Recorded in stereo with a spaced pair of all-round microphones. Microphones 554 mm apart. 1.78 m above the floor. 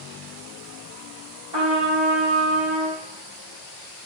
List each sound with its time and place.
1.5 s a trumpet: 50° right (ahead or behind), 3 m